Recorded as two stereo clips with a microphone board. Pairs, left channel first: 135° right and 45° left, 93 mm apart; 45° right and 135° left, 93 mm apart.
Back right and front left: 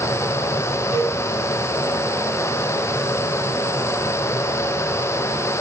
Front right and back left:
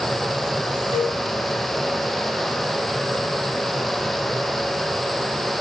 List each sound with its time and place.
0.9 s a cowbell: 115° left, 2.5 m